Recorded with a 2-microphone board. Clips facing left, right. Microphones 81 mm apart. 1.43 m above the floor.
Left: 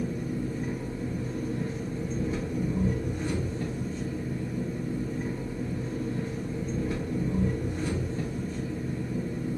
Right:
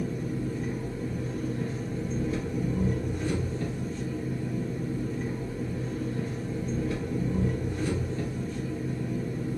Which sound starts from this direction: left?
An engine running, at 0.0 s.